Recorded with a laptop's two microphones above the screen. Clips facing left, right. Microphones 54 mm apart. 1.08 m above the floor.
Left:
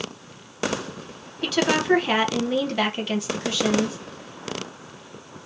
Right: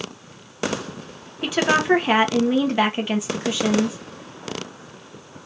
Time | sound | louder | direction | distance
1.4 | a woman speaking | right 2 dB | 15° right (ahead or behind) | 0.8 m